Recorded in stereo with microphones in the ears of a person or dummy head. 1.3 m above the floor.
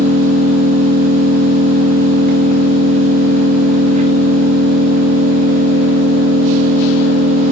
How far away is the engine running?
About 1.7 m.